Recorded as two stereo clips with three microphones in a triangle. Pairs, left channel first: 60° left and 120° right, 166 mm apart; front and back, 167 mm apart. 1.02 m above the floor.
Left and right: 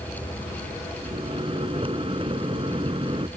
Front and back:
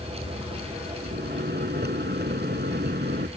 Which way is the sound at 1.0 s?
Straight behind.